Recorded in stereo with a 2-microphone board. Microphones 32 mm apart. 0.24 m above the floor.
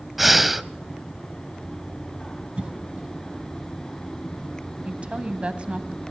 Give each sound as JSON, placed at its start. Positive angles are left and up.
{"t": 0.2, "sound": "breathing", "side_deg": -5, "distance_m": 0.6}
{"t": 2.6, "sound": "a cough", "side_deg": -40, "distance_m": 1.4}
{"t": 4.8, "sound": "a woman speaking", "side_deg": -40, "distance_m": 1.2}